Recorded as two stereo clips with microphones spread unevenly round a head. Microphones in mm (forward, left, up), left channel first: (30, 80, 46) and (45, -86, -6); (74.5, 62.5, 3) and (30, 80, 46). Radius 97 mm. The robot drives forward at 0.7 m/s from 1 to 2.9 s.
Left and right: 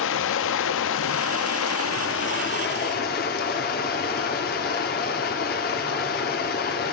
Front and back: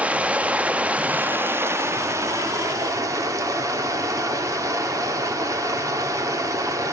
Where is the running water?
90° left, 1.0 m; by 6.9 s 140° left, 1.7 m.